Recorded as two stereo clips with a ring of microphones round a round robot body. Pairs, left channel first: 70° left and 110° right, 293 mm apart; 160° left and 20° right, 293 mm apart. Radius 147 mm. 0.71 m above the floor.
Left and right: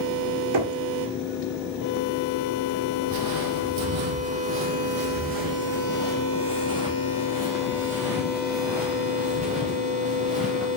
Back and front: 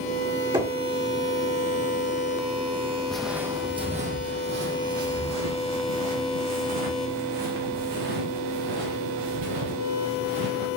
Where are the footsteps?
115° right, 1.2 m; by 10.7 s 25° right, 4 m.